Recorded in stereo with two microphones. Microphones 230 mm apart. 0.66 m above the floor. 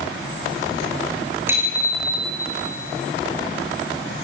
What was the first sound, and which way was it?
A bicycle bell, 10° right (ahead or behind).